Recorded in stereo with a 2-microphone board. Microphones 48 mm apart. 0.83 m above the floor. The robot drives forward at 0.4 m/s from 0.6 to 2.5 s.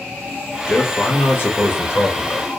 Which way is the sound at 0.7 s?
45° left (ahead or behind).